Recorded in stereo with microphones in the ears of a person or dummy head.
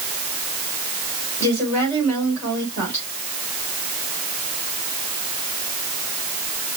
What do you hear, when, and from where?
1.4 s a woman speaking: 20° left (ahead or behind), 3.5 m